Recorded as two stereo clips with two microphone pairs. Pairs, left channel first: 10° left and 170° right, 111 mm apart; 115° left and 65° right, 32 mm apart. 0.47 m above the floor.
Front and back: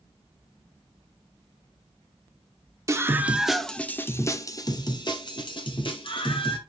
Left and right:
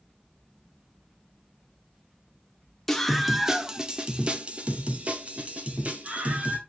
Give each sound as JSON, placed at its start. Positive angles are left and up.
{"t": 2.9, "sound": "a scream", "azimuth_deg": -165, "distance_m": 0.7}